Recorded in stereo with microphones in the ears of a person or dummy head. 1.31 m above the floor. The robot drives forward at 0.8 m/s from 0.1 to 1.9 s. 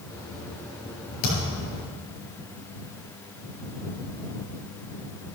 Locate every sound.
1.2 s a thud: 65° left (ahead or behind), 4.5 m; by 1.7 s 70° left (ahead or behind), 4.5 m